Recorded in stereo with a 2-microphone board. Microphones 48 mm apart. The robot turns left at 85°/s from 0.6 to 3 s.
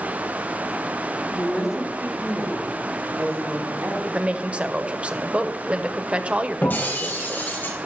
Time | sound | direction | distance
1.3 | a woman speaking | 20° left | 6.5 m
4.1 | a woman speaking | 25° right (ahead or behind) | 0.9 m
6.6 | breaking glass | 45° left (ahead or behind) | 5 m